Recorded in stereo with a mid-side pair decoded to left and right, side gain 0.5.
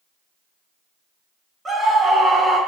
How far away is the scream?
About 0.9 m.